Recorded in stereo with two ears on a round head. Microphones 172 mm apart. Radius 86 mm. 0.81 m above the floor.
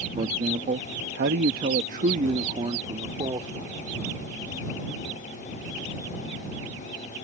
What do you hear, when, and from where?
0.2 s a man speaking: 30° right (ahead or behind); by 3.8 s 20° right (ahead or behind)